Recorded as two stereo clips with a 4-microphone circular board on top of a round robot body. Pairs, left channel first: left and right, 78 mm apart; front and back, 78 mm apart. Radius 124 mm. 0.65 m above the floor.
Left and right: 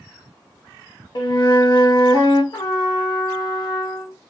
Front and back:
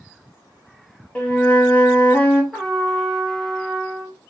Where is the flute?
70° left, 0.9 m.